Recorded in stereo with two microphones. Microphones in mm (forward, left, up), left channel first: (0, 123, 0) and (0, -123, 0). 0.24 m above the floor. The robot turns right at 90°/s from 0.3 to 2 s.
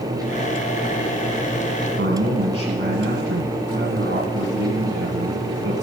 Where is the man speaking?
50° right (ahead or behind), 1.9 m.